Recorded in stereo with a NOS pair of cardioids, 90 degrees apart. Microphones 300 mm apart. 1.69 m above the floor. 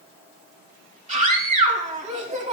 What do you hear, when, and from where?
1.1 s a scream: 25° right, 3 m